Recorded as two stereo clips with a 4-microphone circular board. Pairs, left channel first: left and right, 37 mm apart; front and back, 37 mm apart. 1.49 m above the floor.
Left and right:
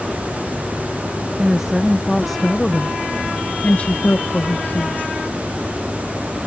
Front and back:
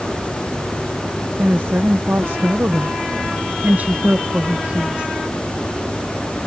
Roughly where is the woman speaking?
Behind.